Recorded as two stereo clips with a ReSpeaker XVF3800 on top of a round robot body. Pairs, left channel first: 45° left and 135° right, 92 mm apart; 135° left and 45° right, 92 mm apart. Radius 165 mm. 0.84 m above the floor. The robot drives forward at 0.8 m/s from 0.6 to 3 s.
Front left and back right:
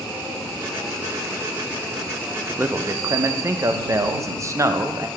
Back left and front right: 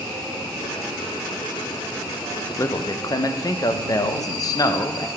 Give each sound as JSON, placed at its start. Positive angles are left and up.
{"t": 2.6, "sound": "a man speaking", "azimuth_deg": 170, "distance_m": 0.6}